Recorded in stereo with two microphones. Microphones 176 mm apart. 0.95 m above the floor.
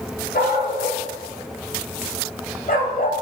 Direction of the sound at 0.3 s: 65° left (ahead or behind).